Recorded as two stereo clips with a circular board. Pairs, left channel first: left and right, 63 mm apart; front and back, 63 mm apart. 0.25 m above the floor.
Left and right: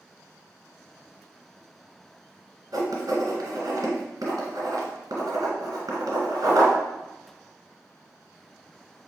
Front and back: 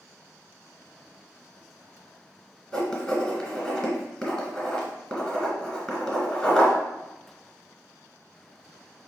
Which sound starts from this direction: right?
Writing, at 2.7 s.